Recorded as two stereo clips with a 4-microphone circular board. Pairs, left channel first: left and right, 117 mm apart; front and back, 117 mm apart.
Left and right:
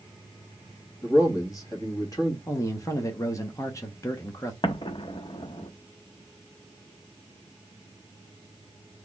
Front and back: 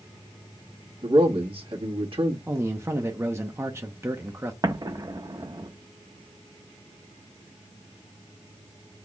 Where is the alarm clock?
I don't hear an alarm clock.